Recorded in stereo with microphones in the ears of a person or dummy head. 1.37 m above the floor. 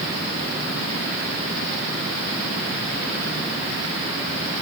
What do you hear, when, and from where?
Only background noise.